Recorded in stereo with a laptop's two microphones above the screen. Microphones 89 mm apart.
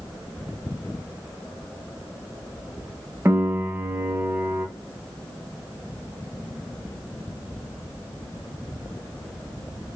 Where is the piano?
30° right (ahead or behind), 0.8 m.